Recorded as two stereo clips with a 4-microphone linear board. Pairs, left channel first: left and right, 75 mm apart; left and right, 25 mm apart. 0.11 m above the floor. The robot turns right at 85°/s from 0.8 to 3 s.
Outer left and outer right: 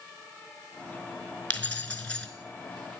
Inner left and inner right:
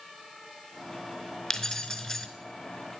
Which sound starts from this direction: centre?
Keys jangling, at 1.5 s.